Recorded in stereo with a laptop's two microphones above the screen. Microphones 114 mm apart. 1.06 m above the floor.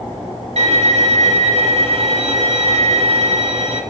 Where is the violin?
65° right (ahead or behind), 2 m.